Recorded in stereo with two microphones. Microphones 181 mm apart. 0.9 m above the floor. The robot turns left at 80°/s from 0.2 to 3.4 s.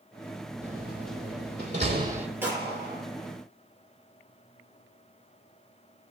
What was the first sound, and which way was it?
A door slam, 40° right (ahead or behind).